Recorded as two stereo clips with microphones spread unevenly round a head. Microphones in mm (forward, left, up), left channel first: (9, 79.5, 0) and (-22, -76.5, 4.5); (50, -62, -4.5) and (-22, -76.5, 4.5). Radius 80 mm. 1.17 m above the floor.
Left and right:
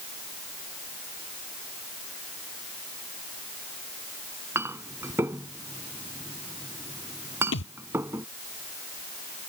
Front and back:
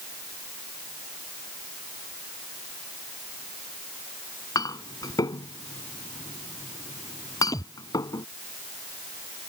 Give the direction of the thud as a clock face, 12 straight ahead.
9 o'clock.